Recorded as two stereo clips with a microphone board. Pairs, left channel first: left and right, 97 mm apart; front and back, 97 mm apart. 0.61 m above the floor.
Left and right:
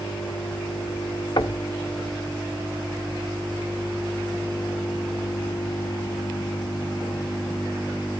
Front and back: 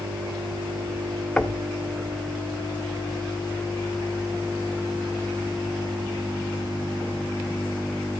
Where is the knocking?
75° left, 1.0 m.